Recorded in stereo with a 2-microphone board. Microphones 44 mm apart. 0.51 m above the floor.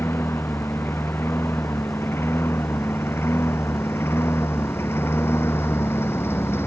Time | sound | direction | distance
0.0 | a lawn mower | 70° left (ahead or behind) | ?